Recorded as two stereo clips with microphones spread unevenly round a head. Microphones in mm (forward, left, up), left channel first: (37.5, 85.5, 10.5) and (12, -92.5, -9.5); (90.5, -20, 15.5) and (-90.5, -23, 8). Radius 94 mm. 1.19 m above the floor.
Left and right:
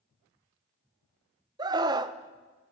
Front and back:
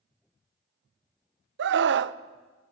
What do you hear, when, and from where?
1.6 s a scream: 165° right, 0.6 m